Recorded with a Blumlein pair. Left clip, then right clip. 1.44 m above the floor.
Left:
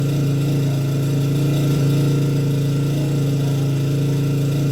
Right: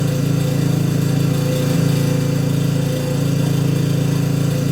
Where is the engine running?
50° right, 5 m.